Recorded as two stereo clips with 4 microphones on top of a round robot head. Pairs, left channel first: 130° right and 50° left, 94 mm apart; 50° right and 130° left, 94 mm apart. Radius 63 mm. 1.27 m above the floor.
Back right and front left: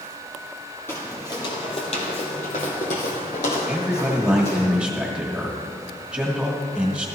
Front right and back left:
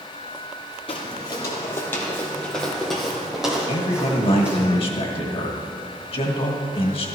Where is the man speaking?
40° right, 1.6 m.